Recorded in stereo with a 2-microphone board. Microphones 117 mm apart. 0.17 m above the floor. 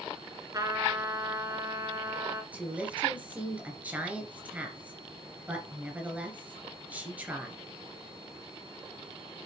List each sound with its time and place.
0.5 s a trumpet: 30° right (ahead or behind), 1.2 m
2.5 s a woman speaking: 10° right (ahead or behind), 3 m